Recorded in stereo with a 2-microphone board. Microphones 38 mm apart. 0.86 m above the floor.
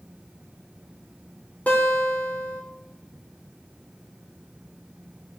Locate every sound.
1.7 s a guitar: 40° left (ahead or behind), 3.5 m